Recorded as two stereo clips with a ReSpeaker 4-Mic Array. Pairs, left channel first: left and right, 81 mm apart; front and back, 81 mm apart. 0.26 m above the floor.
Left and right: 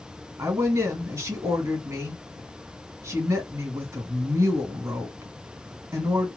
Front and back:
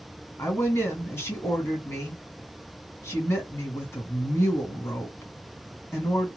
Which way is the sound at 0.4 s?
50° right.